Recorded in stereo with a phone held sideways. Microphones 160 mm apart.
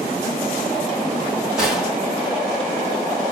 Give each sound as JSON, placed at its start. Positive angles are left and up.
{"t": 1.6, "sound": "a gunshot", "side_deg": -5, "distance_m": 1.9}